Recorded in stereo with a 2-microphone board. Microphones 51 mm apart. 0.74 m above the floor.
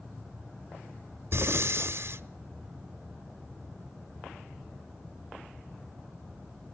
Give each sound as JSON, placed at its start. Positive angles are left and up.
{"t": 1.3, "sound": "breathing", "side_deg": -55, "distance_m": 0.6}